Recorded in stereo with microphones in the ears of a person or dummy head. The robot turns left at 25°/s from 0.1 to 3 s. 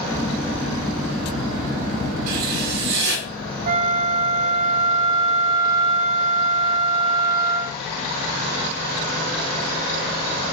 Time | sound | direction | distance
2.3 | writing | 50° right (ahead or behind) | 4.5 m
3.7 | a flute | 45° right (ahead or behind) | 0.8 m